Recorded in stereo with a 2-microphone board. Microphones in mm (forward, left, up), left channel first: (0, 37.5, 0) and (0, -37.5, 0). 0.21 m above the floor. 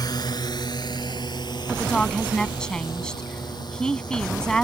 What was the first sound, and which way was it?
A drone, 60° left (ahead or behind).